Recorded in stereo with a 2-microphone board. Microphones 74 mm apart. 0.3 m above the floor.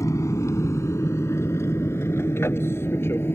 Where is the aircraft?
40° left (ahead or behind); by 3.4 s 30° left (ahead or behind).